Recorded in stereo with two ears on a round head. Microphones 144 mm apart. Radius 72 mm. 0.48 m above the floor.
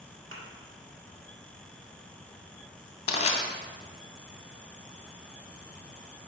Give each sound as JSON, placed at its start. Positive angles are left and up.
{"t": 0.3, "sound": "a thud", "side_deg": -50, "distance_m": 1.6}
{"t": 3.1, "sound": "crushing", "side_deg": 40, "distance_m": 0.9}